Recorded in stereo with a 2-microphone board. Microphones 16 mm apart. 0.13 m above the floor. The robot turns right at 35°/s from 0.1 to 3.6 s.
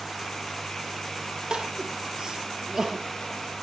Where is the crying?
60° right (ahead or behind), 3.5 m; by 3.6 s 5° right (ahead or behind), 3.5 m.